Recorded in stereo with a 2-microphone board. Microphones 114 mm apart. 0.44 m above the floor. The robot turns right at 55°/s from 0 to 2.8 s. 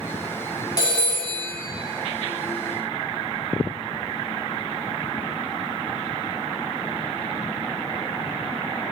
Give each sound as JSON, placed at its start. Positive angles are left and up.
{"t": 0.8, "sound": "a phone ringing", "azimuth_deg": 35, "distance_m": 2.0}